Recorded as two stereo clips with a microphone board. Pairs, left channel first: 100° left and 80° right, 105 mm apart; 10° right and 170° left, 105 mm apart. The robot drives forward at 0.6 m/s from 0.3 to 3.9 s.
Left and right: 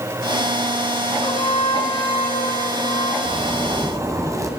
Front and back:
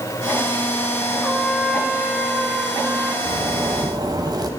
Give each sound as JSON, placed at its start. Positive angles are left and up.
{"t": 1.2, "sound": "a trumpet", "azimuth_deg": 75, "distance_m": 4.0}
{"t": 3.2, "sound": "a zipper", "azimuth_deg": -135, "distance_m": 3.0}